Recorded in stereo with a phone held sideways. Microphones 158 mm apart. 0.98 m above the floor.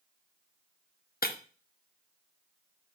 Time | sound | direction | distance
1.2 | breaking glass | 80° left | 0.8 m